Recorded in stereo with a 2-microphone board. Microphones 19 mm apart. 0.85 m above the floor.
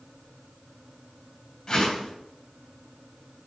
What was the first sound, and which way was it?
A whoosh, 20° left (ahead or behind).